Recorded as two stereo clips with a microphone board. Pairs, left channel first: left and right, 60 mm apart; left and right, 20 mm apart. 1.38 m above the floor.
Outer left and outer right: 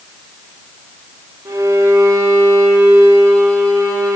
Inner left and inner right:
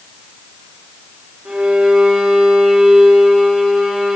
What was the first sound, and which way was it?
A violin, 85° right.